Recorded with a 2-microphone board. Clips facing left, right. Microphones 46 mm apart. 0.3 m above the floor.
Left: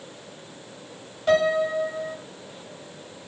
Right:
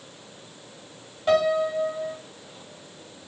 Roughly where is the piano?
Centre.